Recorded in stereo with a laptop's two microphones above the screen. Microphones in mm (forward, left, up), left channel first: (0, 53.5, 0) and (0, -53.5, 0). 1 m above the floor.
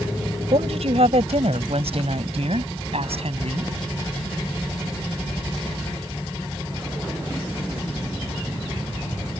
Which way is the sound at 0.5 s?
80° right.